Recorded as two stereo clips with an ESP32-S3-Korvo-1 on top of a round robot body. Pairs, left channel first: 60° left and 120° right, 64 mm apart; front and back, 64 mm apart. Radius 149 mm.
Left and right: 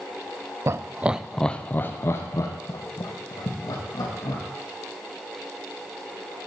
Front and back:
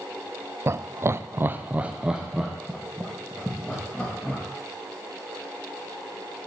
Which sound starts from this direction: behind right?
Laughter, at 0.7 s.